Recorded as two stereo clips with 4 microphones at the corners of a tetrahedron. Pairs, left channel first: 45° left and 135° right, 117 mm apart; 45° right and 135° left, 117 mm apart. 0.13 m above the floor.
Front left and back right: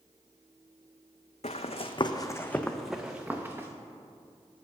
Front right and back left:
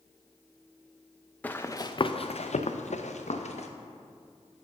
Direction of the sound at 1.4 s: 30° left.